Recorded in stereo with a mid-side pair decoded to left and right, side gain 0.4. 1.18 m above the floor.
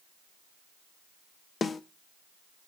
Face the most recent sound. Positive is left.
turn(degrees=45)